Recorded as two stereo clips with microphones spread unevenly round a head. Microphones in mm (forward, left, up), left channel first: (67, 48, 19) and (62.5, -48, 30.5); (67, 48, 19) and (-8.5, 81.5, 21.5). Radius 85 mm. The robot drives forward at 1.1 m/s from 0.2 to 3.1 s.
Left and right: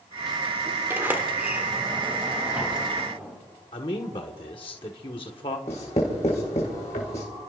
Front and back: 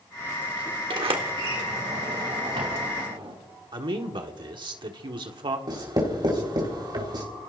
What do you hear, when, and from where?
0.9 s a sliding door: 165° right, 1.1 m; by 3.3 s 175° right, 3.5 m
3.7 s a man speaking: 135° left, 1.3 m
5.7 s writing: 130° left, 3.5 m